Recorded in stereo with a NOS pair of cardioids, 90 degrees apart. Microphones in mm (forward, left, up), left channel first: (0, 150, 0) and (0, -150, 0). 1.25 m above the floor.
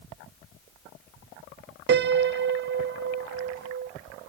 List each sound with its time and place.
1.9 s a piano: 40° right, 0.5 m